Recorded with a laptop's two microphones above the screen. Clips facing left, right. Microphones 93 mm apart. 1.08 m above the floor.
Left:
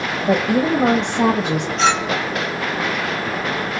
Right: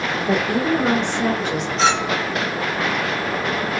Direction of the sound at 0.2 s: 50° left (ahead or behind).